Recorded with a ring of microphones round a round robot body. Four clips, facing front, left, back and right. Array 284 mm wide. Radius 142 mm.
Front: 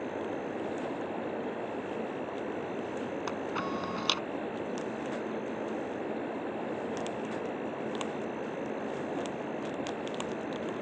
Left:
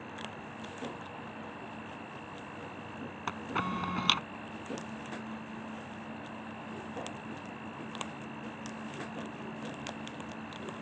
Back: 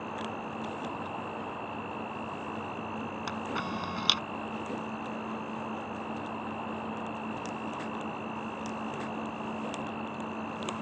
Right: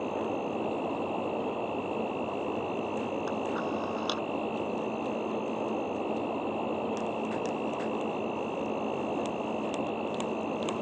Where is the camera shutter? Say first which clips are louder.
Right 4 dB, even; 100° left.